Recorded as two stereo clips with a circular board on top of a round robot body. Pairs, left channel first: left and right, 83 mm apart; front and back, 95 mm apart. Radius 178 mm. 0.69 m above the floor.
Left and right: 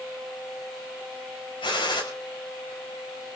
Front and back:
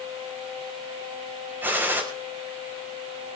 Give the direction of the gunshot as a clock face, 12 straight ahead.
8 o'clock.